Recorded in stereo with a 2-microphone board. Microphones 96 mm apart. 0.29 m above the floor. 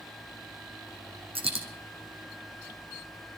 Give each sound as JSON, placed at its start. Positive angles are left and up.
{"t": 1.4, "sound": "a dropped coin", "side_deg": -80, "distance_m": 1.9}